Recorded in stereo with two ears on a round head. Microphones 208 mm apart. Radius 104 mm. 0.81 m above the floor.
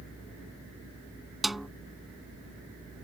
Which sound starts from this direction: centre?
A snare drum, at 1.4 s.